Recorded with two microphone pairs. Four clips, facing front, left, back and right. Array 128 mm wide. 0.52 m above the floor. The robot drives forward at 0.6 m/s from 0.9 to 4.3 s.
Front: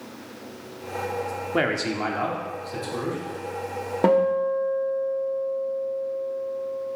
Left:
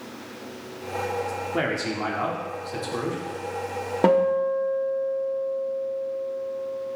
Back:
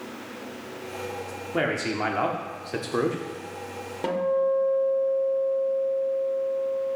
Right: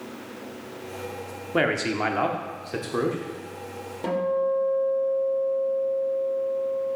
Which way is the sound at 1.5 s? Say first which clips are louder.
Right 5 dB, front 1 dB; 45° right.